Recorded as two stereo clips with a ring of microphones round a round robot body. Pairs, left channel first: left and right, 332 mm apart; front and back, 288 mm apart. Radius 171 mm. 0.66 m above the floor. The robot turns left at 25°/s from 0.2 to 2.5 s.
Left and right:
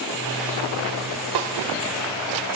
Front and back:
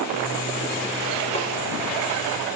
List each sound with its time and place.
1.4 s a snare drum: 70° right, 2.5 m; by 1.5 s 75° right, 2.5 m